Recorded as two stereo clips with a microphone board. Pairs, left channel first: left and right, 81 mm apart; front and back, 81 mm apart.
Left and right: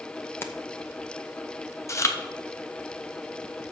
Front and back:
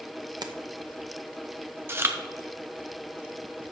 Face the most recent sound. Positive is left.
turn(degrees=125)